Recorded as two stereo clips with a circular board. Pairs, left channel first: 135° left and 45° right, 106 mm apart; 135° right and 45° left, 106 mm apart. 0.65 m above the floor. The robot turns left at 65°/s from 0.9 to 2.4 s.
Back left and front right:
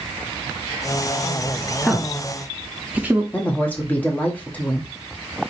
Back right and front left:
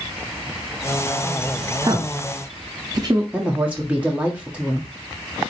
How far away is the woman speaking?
About 1.1 m.